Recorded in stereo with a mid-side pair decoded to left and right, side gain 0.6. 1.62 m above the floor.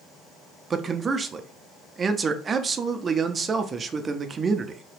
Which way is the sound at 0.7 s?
30° right.